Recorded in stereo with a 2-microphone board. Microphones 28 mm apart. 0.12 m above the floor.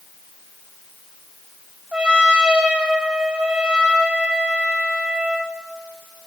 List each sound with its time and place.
1.9 s a trumpet: 40° right (ahead or behind), 1.4 m